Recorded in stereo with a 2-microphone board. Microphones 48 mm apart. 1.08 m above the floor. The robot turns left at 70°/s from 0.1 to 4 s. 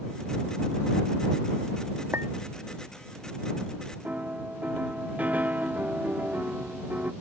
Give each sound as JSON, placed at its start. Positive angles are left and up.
{"t": 2.1, "sound": "a clink", "side_deg": -70}
{"t": 4.0, "sound": "a piano", "side_deg": -35}